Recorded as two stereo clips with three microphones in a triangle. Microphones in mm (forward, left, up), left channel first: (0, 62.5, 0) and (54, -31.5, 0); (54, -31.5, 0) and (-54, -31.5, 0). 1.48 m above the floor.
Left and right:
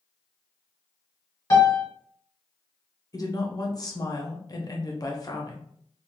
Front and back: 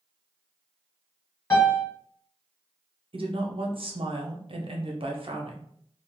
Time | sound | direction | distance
1.5 | a piano | 65° left | 1.2 m
3.1 | a woman speaking | 165° left | 0.6 m